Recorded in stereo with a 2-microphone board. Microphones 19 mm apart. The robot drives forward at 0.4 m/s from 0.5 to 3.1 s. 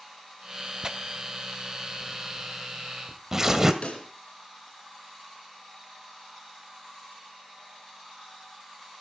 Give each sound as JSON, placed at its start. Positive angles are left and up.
{"t": 0.8, "sound": "tearing paper", "side_deg": -35, "distance_m": 1.1}
{"t": 3.8, "sound": "a pop", "side_deg": 65, "distance_m": 3.5}